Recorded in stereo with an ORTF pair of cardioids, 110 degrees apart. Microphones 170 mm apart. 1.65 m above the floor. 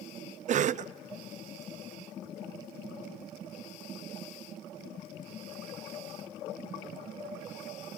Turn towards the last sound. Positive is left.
turn(degrees=-50)